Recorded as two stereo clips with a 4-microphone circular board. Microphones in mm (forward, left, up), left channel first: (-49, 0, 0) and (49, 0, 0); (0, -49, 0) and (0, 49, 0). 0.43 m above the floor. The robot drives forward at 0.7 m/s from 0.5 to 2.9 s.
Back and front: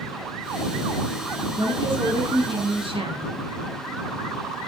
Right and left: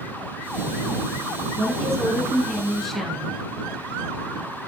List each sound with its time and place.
1.6 s a woman speaking: straight ahead, 6 m